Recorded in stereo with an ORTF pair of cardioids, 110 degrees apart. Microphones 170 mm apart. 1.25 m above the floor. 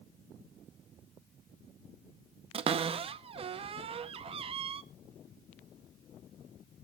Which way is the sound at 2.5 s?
35° right.